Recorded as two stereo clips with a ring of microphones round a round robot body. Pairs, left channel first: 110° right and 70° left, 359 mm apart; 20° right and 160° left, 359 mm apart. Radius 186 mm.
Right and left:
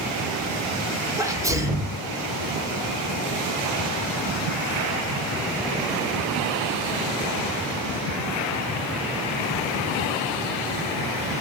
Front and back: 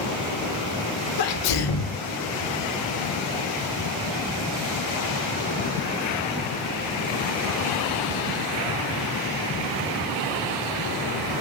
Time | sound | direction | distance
1.2 | a sneeze | 15° right | 2.5 m